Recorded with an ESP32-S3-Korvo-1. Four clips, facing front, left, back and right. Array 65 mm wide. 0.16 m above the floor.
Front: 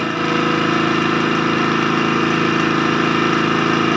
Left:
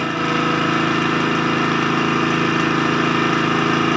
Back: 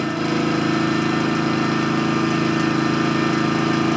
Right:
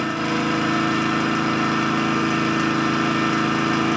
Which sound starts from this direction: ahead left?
An engine running, at 0.0 s.